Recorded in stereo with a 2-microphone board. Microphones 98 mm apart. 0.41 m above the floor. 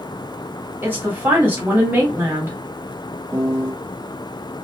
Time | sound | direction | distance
0.8 | a woman speaking | 20° right (ahead or behind) | 1.0 m
3.3 | a piano | 30° right (ahead or behind) | 0.8 m